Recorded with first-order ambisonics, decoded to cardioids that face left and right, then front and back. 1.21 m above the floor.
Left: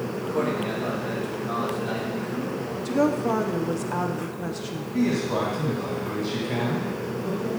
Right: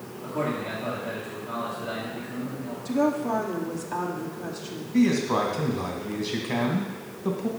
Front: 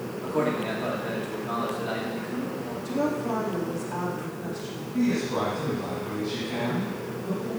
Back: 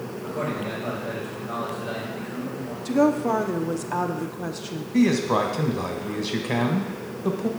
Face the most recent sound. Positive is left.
turn(degrees=-165)